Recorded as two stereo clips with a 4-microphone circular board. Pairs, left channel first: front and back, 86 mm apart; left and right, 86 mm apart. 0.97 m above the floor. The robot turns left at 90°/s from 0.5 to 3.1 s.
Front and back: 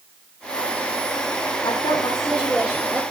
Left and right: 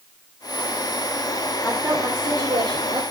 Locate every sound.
1.6 s a woman speaking: straight ahead, 3 m; by 3.0 s 125° right, 3 m